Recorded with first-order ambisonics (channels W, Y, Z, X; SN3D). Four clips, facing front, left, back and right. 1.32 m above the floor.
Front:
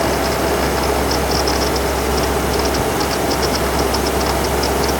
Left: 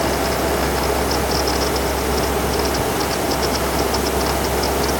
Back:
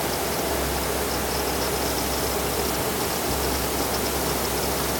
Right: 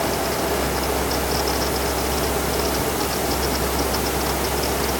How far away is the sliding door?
No sliding door in this recording.